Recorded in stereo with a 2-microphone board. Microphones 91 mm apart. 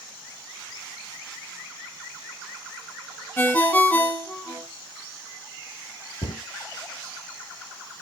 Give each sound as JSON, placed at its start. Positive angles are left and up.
{"t": 3.4, "sound": "a ringtone", "side_deg": 20, "distance_m": 0.9}
{"t": 6.2, "sound": "a cupboard door", "side_deg": 70, "distance_m": 0.9}